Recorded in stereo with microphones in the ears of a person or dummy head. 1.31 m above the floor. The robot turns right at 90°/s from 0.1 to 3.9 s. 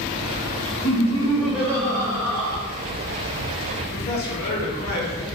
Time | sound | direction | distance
0.8 | laughter | 125° left | 1.4 m
3.8 | a man speaking | 50° left (ahead or behind) | 1.6 m